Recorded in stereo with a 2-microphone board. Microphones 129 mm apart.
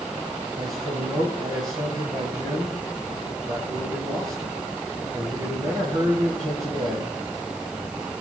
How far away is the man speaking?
About 3 m.